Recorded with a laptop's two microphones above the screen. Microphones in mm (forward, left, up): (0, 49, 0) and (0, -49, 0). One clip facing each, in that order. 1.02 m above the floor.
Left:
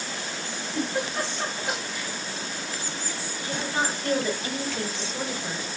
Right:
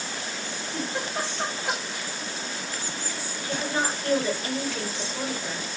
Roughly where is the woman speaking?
Left.